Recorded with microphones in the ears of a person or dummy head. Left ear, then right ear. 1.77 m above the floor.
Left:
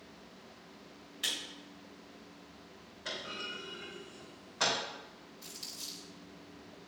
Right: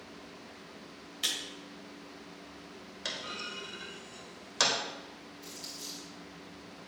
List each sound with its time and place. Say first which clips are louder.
1.2 s a camera shutter: right 2 dB; 10° right (ahead or behind), 2.5 m
3.0 s a clunk: right 2 dB; 75° right (ahead or behind), 2 m
5.4 s crumpling: even; 30° left (ahead or behind), 1.6 m